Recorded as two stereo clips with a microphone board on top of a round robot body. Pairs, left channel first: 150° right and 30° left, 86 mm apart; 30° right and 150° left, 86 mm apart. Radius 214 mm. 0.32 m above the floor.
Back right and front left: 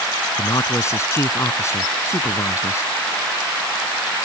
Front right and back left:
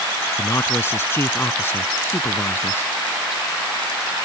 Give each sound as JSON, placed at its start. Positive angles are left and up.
{"t": 0.4, "sound": "a man speaking", "azimuth_deg": -95}